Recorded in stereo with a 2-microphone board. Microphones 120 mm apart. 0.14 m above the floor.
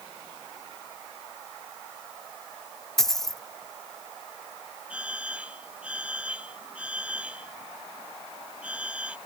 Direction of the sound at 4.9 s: 10° right (ahead or behind).